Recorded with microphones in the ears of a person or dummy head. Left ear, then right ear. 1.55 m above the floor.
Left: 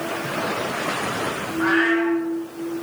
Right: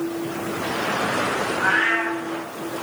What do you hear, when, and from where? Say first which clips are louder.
1.6 s a cat meowing: left 1 dB; 50° right (ahead or behind), 1.2 m